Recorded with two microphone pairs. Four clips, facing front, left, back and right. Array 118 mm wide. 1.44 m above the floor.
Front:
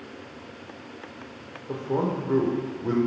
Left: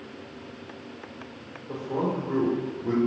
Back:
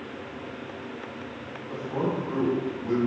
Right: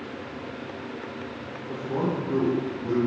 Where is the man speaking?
5° right, 0.7 m.